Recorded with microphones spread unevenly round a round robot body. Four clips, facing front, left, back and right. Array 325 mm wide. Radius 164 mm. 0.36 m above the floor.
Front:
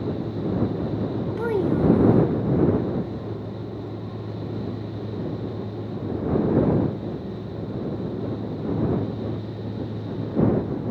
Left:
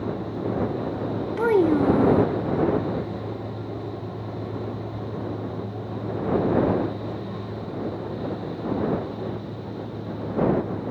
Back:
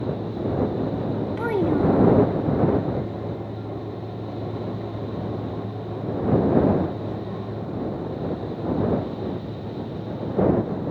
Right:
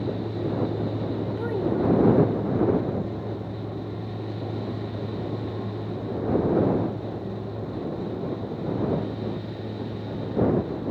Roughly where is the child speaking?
Left.